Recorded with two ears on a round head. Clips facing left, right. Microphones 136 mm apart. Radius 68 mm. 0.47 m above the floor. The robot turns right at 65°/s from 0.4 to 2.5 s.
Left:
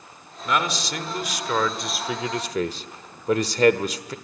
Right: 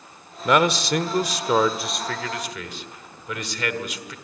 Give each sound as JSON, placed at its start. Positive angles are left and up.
{"t": 0.5, "sound": "a man speaking", "azimuth_deg": -95, "distance_m": 1.2}